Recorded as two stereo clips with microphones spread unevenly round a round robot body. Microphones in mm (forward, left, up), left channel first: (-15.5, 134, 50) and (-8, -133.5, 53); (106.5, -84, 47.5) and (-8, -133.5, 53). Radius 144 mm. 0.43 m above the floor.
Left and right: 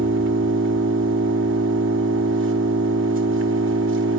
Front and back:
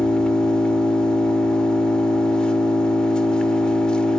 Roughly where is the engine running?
Ahead right.